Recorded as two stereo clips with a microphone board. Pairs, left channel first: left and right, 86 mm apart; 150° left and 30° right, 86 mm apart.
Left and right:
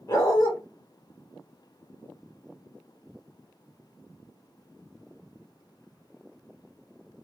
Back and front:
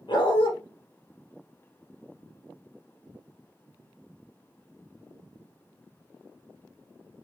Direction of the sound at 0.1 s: 135° left.